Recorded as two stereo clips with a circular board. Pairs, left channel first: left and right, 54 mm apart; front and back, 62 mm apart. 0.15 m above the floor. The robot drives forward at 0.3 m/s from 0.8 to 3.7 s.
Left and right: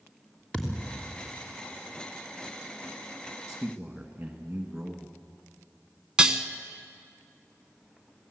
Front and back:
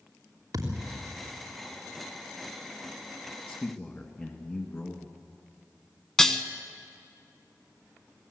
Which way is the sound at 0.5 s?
165° left.